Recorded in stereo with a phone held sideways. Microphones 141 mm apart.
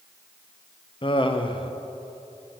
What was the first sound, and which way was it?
Laughter, 35° left (ahead or behind).